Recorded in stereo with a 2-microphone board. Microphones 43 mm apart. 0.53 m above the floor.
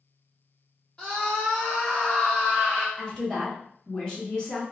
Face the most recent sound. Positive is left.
turn(degrees=20)  # may be behind; listen again after turning